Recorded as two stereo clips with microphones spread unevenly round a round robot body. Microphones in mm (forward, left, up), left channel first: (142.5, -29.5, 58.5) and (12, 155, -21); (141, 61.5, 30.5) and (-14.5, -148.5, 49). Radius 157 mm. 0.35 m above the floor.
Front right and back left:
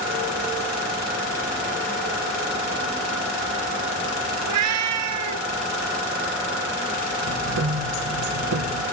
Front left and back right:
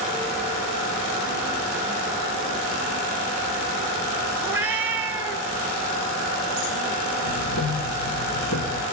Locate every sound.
4.4 s a cat meowing: 150° left, 1.2 m
7.2 s ticking: 110° left, 3 m